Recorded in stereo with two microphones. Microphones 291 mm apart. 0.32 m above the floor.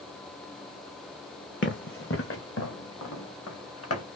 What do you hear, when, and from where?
1.6 s running footsteps: 40° left (ahead or behind), 1.2 m; by 4.0 s 50° left (ahead or behind), 3 m